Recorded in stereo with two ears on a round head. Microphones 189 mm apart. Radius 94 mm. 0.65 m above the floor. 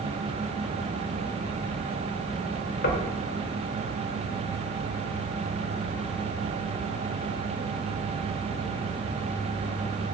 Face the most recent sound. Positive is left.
turn(degrees=55)  # may be behind; listen again after turning